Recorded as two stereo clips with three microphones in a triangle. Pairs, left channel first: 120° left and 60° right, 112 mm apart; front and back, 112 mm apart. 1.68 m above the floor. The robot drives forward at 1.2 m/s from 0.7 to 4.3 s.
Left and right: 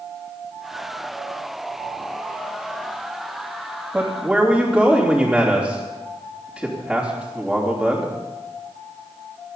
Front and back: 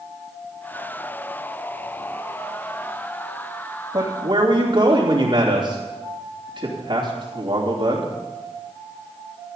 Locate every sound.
3.9 s a man speaking: 145° right, 2.5 m; by 8.1 s 150° right, 3 m